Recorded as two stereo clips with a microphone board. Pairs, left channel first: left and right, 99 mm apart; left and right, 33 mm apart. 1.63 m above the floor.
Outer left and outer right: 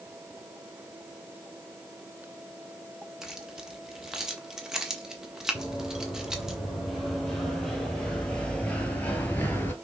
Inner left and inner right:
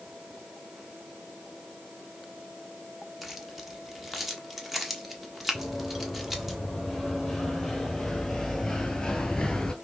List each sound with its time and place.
3.2 s keys jangling: 5° right (ahead or behind), 1.3 m
5.5 s running footsteps: 5° right (ahead or behind), 3.5 m; by 9.7 s 20° left (ahead or behind), 1.8 m